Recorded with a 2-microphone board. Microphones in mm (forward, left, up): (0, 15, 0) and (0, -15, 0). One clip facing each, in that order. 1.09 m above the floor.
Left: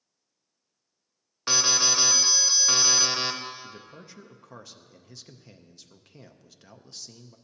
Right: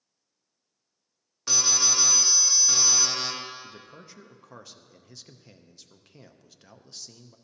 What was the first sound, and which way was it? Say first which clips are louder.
An alarm: left 2 dB; 35° left (ahead or behind).